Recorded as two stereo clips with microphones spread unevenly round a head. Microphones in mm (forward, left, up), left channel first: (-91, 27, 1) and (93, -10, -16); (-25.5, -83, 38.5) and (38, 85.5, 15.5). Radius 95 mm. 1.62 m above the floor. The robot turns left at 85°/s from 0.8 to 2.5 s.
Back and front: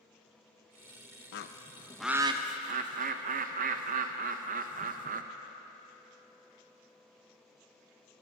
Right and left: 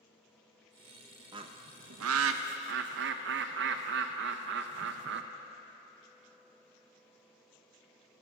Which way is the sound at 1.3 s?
140° left.